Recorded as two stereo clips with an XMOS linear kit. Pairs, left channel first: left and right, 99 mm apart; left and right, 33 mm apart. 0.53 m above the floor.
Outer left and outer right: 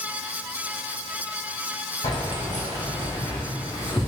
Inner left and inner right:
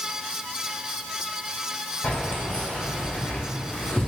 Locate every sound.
2.0 s keys jangling: 75° left (ahead or behind), 1.6 m; by 4.1 s 30° left (ahead or behind), 0.7 m